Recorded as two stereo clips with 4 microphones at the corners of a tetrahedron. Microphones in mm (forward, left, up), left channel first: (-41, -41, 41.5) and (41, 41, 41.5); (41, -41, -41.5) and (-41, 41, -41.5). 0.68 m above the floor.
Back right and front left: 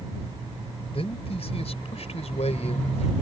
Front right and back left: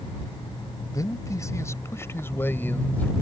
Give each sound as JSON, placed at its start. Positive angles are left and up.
{"t": 0.9, "sound": "a man speaking", "azimuth_deg": -105}